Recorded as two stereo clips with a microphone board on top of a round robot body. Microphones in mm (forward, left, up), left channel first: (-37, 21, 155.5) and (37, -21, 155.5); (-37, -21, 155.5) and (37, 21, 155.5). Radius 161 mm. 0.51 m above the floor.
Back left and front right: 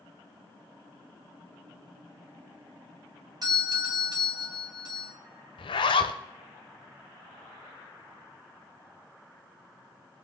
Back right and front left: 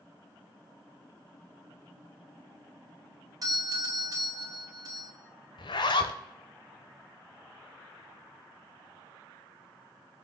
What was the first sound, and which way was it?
A doorbell, 5° right.